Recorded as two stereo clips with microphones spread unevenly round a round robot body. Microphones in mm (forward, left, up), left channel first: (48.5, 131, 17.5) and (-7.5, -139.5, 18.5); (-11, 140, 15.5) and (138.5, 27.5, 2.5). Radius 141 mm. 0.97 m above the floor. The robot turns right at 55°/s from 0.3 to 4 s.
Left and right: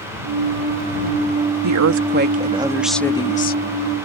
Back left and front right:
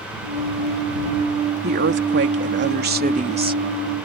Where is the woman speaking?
80° right; by 3.6 s 30° left.